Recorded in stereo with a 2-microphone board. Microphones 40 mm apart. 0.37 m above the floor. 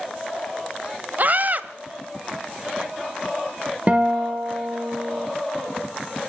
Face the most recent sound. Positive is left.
turn(degrees=-40)  # may be behind; listen again after turning